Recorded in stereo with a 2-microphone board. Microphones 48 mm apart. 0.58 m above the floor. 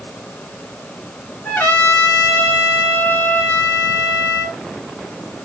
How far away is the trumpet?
About 1.8 m.